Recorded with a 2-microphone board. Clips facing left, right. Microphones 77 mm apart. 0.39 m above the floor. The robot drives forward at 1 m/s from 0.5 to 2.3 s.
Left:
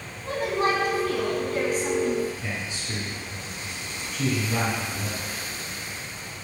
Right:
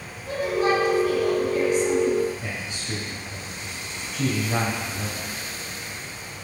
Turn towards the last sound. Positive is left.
turn(degrees=-35)  # may be behind; listen again after turning